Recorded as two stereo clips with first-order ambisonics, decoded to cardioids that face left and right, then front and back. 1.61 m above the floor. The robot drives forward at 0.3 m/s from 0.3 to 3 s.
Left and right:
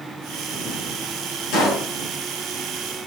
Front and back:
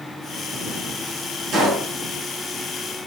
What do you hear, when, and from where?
1.5 s a pop: 125° left, 3 m